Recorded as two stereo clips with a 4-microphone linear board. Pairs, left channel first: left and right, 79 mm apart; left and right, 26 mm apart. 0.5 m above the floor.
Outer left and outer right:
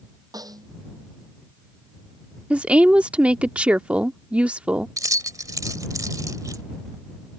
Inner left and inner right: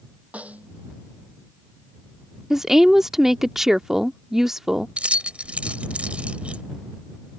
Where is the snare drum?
55° right (ahead or behind).